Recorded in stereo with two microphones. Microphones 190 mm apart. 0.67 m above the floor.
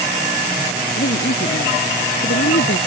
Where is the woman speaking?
85° left.